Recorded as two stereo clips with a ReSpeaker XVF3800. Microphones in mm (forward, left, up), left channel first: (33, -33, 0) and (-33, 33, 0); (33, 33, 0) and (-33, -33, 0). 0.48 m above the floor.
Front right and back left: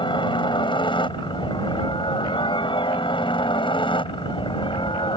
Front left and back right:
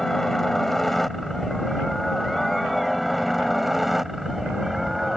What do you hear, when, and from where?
0.0 s a helicopter: 40° right; by 5.2 s 50° right